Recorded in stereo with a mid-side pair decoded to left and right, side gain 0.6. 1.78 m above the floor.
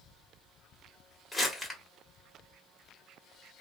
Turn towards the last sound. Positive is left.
turn(degrees=15)